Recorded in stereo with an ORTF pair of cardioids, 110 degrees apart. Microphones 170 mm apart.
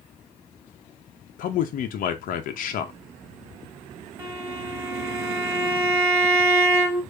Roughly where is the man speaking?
Ahead left.